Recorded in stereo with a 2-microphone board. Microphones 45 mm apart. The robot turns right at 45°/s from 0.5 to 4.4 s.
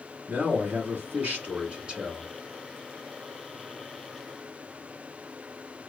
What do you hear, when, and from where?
0.3 s a man speaking: 95° right, 1.3 m; by 2.3 s 20° right, 1.3 m